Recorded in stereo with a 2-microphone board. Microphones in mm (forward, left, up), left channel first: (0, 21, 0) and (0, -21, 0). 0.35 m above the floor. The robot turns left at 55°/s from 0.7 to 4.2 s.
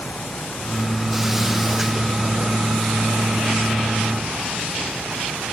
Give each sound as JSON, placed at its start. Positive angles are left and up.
{"t": 0.0, "sound": "a vehicle", "azimuth_deg": 50}